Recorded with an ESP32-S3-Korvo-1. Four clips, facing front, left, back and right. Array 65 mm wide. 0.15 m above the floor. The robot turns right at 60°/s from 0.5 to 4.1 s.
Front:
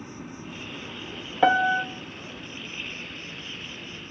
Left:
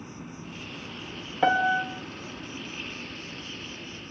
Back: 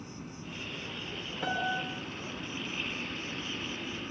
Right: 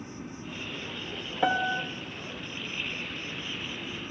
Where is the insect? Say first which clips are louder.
Right 1 dB, front 5 dB; 15° left, 2 m; by 4.1 s 130° right, 2 m.